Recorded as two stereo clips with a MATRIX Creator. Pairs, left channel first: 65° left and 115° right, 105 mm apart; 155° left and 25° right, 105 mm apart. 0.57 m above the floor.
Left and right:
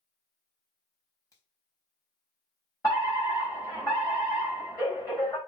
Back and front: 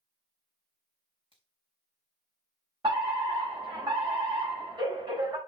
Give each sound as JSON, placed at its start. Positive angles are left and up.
{"t": 1.3, "sound": "a finger snap", "azimuth_deg": 10, "distance_m": 4.0}
{"t": 2.8, "sound": "a fire alarm", "azimuth_deg": 15, "distance_m": 5.5}